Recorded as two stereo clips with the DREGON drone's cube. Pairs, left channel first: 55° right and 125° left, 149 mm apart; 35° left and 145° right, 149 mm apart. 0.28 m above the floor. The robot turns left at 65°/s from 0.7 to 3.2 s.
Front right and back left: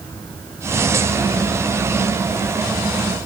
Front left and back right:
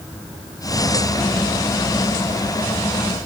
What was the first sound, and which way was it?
Only background noise.